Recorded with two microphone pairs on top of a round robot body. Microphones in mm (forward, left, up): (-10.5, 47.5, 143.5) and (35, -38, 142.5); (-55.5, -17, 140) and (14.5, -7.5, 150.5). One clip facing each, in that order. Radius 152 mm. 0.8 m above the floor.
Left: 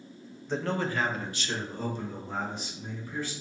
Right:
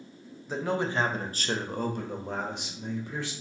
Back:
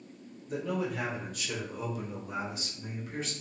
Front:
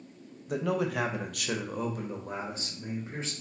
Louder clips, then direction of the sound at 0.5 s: Right 1 dB, front 3 dB; 25° left.